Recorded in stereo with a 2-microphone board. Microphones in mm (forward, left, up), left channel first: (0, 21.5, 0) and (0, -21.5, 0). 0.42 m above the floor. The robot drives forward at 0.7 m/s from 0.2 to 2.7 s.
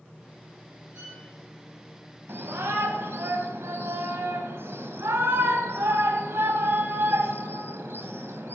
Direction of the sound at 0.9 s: 55° right (ahead or behind).